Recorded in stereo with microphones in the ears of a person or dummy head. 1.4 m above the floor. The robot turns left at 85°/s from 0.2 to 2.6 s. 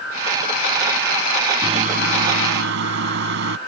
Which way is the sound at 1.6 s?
25° right.